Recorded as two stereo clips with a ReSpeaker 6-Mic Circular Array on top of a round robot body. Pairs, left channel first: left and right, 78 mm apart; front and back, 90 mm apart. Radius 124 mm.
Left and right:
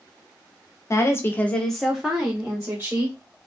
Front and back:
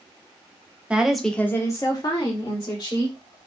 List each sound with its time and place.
0.9 s a woman speaking: 110° left, 1.0 m; by 3.2 s 25° right, 2.0 m